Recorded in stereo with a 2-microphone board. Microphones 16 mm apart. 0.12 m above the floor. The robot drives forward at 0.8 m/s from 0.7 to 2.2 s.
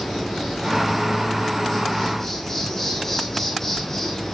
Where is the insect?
10° left (ahead or behind), 4.5 m; by 4.3 s 15° left (ahead or behind), 3.5 m.